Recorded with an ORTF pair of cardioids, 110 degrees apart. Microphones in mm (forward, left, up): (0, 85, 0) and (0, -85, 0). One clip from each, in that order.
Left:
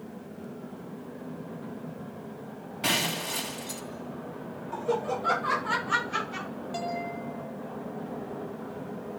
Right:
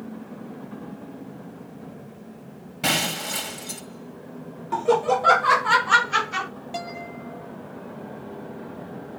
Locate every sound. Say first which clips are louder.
2.8 s breaking glass: right 4 dB; 35° right, 3.5 m
4.7 s laughter: right 9 dB; 50° right, 0.7 m
6.7 s a guitar: left 1 dB; 35° right, 8.5 m